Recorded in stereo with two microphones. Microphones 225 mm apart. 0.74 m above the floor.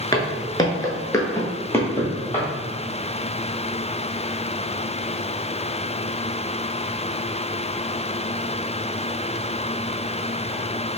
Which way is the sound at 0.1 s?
15° left (ahead or behind).